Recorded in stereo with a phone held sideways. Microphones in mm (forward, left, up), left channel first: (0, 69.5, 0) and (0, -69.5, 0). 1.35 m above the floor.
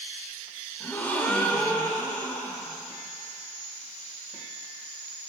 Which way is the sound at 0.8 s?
10° left (ahead or behind).